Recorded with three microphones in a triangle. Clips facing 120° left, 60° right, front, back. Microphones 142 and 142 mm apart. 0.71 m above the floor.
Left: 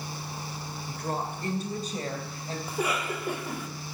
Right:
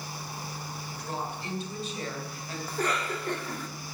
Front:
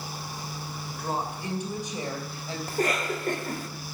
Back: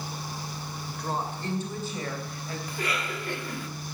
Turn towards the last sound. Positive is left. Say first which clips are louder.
# even, front 7 dB
turn(degrees=40)